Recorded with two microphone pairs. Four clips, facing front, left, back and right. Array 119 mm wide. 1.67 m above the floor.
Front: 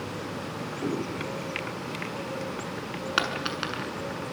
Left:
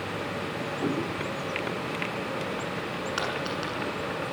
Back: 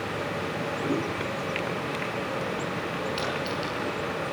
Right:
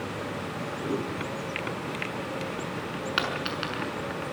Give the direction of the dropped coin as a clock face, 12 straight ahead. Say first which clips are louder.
Right 2 dB, even; 12 o'clock.